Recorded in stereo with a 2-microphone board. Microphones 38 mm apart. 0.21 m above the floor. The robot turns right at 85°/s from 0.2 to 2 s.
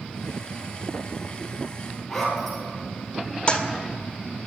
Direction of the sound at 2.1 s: 5° left (ahead or behind).